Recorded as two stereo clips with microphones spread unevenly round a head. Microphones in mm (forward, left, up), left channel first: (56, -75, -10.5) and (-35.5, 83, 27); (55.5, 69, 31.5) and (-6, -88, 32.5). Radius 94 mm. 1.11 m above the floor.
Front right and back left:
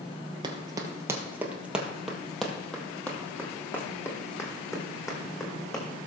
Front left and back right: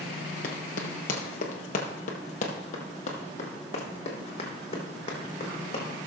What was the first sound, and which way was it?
Running footsteps, 85° left.